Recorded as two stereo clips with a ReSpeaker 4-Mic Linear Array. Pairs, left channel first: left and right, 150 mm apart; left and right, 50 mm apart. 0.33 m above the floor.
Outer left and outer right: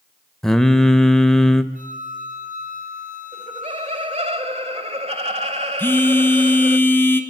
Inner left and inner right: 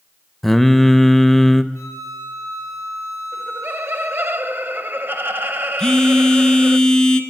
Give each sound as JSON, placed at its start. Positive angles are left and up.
{"t": 0.4, "sound": "singing", "side_deg": 5, "distance_m": 0.6}
{"t": 1.7, "sound": "a flute", "side_deg": 65, "distance_m": 4.0}
{"t": 3.3, "sound": "laughter", "side_deg": -45, "distance_m": 1.2}
{"t": 5.8, "sound": "a phone buzzing", "side_deg": 15, "distance_m": 1.3}